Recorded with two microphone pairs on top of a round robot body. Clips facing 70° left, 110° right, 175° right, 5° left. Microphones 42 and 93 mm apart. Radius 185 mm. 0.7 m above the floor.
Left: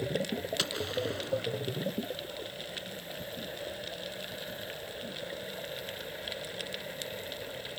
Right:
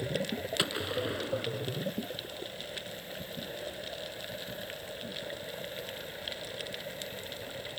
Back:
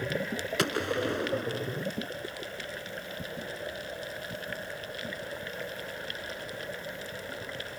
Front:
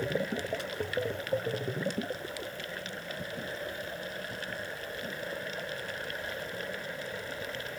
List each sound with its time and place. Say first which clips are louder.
0.6 s a gunshot: right 3 dB, back 4 dB; 175° left